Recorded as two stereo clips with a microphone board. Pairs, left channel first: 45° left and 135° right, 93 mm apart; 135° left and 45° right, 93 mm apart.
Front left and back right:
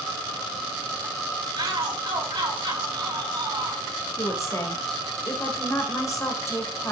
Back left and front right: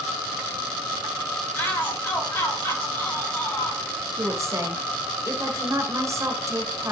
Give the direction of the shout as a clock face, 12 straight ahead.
5 o'clock.